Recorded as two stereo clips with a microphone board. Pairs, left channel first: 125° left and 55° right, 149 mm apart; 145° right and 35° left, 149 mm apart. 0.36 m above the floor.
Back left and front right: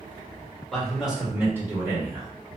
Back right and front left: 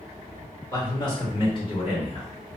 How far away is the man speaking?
About 1.4 m.